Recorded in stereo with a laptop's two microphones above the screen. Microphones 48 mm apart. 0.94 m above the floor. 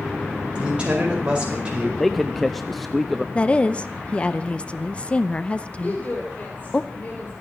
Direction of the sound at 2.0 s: 5° left (ahead or behind).